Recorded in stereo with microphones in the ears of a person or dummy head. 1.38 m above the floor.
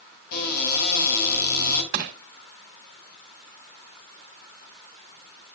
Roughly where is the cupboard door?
Left.